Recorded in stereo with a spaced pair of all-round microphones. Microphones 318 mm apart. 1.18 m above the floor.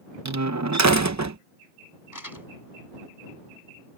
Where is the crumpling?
75° left (ahead or behind).